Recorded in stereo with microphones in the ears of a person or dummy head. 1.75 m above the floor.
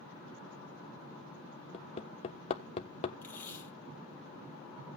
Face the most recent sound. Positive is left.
turn(degrees=10)  # may be behind; listen again after turning